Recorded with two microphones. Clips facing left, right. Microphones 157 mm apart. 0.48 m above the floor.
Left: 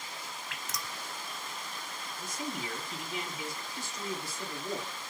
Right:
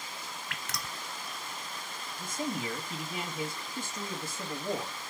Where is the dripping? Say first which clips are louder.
Right 1 dB; 70° right (ahead or behind), 0.6 m.